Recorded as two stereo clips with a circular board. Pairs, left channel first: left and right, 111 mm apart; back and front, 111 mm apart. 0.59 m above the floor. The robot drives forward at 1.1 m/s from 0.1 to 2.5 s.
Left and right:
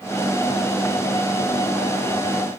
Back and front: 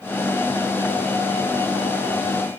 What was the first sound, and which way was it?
Only background noise.